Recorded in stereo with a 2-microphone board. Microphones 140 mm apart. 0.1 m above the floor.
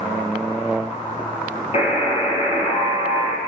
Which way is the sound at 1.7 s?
45° left (ahead or behind).